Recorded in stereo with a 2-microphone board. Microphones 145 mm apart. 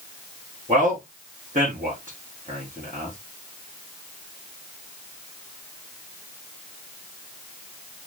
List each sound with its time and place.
0.7 s a man speaking: 60° right (ahead or behind), 5.5 m